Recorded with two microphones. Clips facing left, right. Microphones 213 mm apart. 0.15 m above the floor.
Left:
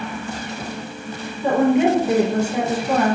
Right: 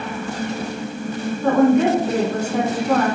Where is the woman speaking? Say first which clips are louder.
Right 1 dB; 10° left (ahead or behind), 1.1 m.